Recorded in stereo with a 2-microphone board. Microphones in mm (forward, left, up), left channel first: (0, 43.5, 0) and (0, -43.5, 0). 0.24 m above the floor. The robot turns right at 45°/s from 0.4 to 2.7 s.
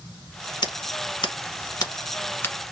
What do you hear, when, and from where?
0.6 s scissors: 60° left (ahead or behind), 0.9 m; by 2.5 s 20° left (ahead or behind), 0.9 m